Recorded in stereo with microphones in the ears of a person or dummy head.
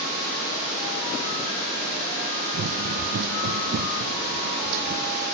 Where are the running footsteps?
65° right (ahead or behind); by 5.2 s 55° right (ahead or behind).